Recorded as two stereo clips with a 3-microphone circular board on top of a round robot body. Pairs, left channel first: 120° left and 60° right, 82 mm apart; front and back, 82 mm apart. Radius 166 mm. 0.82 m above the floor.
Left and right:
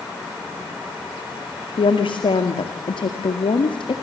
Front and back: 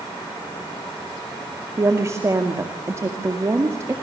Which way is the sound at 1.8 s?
125° left.